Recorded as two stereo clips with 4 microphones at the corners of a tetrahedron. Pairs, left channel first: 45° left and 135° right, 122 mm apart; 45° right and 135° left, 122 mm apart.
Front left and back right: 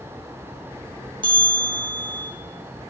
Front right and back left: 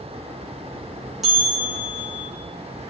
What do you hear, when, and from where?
1.2 s a bell: 140° right, 2.0 m